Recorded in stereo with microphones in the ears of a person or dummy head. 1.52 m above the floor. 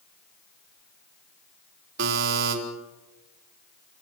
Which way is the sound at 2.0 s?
65° right (ahead or behind).